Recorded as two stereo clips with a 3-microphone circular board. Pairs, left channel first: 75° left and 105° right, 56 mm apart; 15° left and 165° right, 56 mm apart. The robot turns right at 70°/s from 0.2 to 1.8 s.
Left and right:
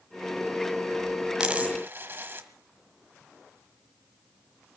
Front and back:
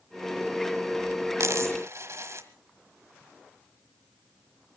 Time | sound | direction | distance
1.4 | a dropped coin | straight behind | 1.4 m